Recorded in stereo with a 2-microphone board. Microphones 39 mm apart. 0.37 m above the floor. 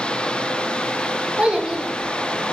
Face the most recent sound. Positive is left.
turn(degrees=30)  # may be behind; listen again after turning